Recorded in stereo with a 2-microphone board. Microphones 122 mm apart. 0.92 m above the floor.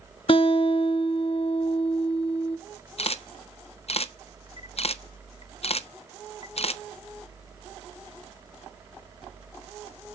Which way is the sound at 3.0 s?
55° left (ahead or behind).